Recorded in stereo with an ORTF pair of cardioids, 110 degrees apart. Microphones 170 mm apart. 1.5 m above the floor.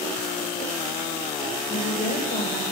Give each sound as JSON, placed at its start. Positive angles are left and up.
{"t": 1.7, "sound": "a woman speaking", "azimuth_deg": 55, "distance_m": 2.5}